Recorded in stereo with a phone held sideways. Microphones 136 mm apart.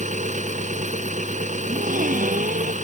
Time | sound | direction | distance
0.0 | an engine running | 65° right (ahead or behind) | ?
1.6 | a gasp | 80° right | ?